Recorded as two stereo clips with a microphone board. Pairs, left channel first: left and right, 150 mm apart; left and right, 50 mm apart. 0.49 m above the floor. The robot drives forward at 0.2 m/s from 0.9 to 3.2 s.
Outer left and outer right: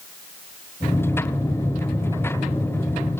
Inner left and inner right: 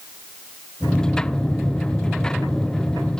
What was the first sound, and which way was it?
Only background noise.